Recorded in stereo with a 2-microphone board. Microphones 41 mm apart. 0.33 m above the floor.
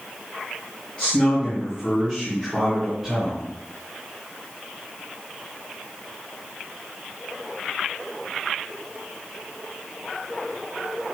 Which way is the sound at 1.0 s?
25° left (ahead or behind).